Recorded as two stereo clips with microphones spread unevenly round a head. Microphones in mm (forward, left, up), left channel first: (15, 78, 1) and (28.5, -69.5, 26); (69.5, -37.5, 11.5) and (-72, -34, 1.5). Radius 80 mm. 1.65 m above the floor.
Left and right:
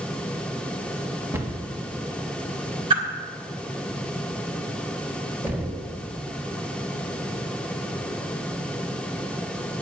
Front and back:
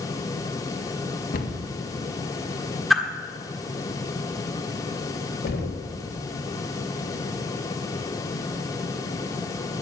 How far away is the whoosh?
About 1.5 m.